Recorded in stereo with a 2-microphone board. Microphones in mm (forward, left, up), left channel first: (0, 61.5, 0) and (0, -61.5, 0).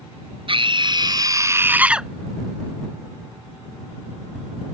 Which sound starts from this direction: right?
A scream, at 0.5 s.